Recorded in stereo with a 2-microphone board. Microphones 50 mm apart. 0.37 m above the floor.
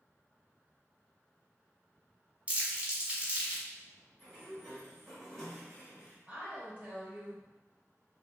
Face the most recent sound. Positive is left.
turn(degrees=-30)  # may be behind; listen again after turning